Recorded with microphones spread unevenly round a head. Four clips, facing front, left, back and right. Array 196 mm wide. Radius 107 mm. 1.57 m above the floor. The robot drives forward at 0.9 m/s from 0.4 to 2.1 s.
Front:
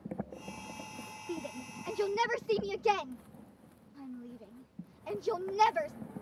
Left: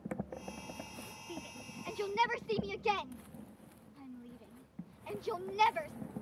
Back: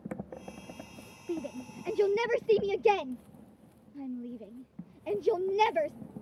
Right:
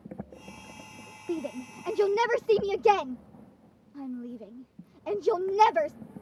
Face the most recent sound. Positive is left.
turn(degrees=-125)